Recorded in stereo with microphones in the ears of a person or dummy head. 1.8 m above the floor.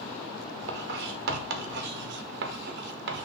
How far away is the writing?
About 1.1 m.